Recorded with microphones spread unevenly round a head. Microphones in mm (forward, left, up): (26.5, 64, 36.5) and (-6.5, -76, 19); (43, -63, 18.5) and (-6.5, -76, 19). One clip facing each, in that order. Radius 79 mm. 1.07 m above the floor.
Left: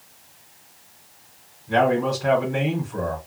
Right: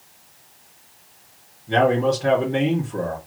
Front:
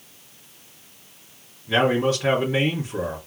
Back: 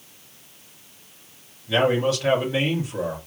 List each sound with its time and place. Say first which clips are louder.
1.7 s a man speaking: right 2 dB, even; 50° right, 2.5 m